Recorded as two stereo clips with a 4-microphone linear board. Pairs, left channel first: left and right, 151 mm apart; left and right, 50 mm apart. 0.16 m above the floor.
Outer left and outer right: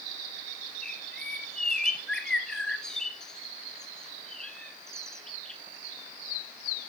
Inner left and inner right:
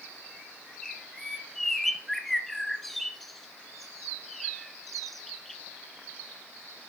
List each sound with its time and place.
0.8 s a bird: 5° left (ahead or behind), 1.0 m